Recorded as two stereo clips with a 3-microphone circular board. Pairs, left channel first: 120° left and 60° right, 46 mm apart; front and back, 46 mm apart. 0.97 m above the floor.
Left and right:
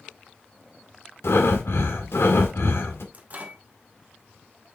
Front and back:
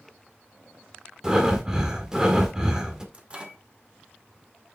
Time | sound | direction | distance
1.2 | breathing | 105° left | 1.5 m
3.1 | a microwave | 110° right | 2 m